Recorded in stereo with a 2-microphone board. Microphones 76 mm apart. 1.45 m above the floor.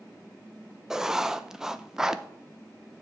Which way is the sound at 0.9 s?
10° right (ahead or behind).